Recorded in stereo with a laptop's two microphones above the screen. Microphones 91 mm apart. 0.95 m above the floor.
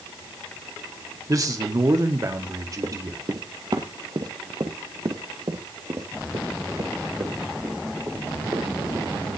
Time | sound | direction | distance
1.3 | a man speaking | 40° right (ahead or behind) | 2.5 m
2.8 | running footsteps | 40° right (ahead or behind) | 1.3 m